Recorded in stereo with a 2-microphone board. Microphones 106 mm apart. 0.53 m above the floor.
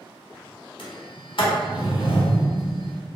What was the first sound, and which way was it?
A sliding door, 60° left (ahead or behind).